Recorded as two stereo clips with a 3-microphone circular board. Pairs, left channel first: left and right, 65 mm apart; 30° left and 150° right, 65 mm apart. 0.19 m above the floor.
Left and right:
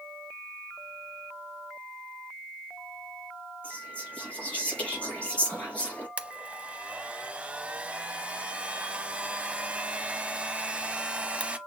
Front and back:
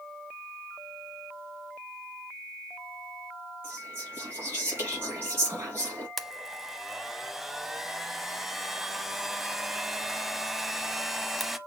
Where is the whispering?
160° left, 3.5 m.